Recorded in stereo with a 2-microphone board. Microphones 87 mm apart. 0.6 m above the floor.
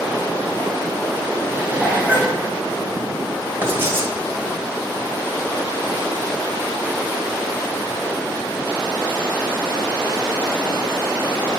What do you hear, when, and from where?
1.5 s dishes clattering: 20° right (ahead or behind), 2.5 m
3.6 s writing: 30° right (ahead or behind), 1.6 m